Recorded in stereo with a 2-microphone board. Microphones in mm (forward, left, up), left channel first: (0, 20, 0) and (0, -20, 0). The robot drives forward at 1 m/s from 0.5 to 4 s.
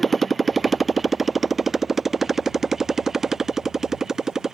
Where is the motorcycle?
Centre (ahead or behind); by 4.5 s 10° right (ahead or behind).